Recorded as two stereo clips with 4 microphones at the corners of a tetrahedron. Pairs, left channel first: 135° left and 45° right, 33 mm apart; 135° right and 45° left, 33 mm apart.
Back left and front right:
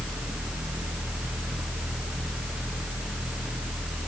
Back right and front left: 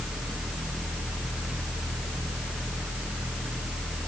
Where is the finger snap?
I don't hear a finger snap.